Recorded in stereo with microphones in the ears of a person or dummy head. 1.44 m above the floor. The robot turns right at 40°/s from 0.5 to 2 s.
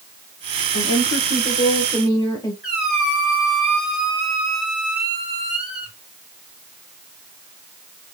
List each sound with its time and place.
0.7 s a woman speaking: 115° left, 1.5 m; by 2.5 s 165° left, 1.5 m
2.6 s a squeak: 5° right (ahead or behind), 2.5 m